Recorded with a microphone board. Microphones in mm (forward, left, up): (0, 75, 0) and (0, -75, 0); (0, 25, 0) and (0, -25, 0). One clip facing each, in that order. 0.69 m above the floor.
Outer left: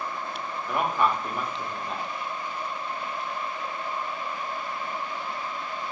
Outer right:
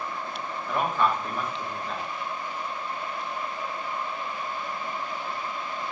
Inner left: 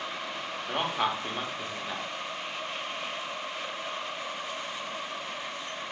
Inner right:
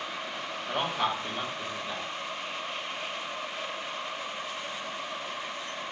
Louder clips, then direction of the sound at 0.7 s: Even, even; 15° left (ahead or behind).